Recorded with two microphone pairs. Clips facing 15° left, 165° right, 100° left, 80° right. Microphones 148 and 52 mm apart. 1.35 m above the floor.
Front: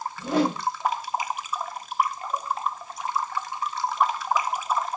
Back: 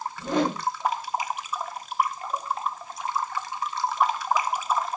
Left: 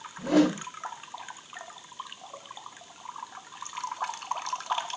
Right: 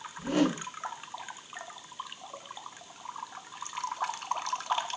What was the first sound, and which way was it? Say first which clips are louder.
A whoosh: front 2 dB, left 5 dB; 100° left.